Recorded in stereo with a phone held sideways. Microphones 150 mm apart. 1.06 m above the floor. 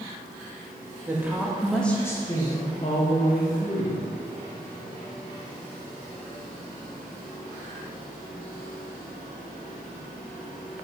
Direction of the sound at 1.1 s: 15° right (ahead or behind).